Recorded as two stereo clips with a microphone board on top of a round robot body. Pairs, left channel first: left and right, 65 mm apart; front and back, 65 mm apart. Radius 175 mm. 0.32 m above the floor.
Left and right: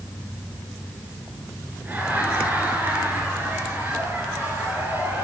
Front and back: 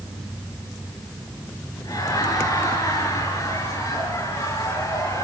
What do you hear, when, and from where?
1.8 s laughter: 30° right, 6 m; by 5.2 s 40° right, 8 m